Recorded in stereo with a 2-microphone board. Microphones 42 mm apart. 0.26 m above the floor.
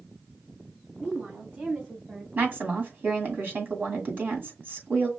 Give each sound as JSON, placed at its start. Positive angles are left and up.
{"t": 1.0, "sound": "a woman speaking", "side_deg": -55, "distance_m": 2.5}
{"t": 2.4, "sound": "a woman speaking", "side_deg": -50, "distance_m": 2.0}